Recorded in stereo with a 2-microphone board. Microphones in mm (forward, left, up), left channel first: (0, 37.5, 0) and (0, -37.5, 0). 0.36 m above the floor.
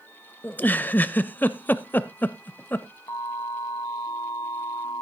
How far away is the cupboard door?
No cupboard door in this recording.